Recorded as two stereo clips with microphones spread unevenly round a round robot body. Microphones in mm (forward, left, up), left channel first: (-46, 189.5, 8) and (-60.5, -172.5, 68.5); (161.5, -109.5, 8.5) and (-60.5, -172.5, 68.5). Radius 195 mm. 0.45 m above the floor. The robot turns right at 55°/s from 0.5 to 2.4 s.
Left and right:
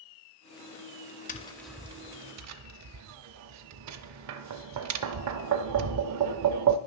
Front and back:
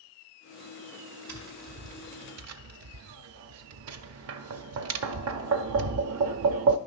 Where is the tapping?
155° left, 0.5 m; by 6.8 s 140° right, 0.5 m.